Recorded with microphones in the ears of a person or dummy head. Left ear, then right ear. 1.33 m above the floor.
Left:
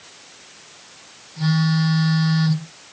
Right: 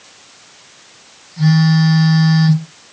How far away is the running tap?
No running tap in this recording.